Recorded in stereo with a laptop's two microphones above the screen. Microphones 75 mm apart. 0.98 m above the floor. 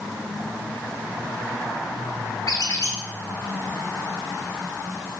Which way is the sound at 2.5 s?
50° left (ahead or behind).